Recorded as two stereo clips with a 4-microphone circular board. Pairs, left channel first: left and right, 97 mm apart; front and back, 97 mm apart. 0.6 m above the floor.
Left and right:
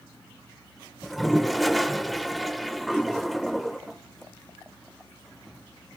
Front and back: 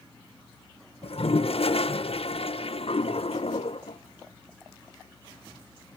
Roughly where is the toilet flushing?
Ahead.